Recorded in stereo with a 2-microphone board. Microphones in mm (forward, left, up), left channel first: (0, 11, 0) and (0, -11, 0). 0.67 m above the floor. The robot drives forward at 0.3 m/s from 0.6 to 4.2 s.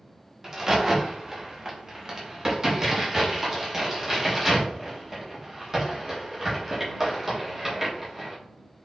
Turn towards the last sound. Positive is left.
turn(degrees=-20)  # may be behind; listen again after turning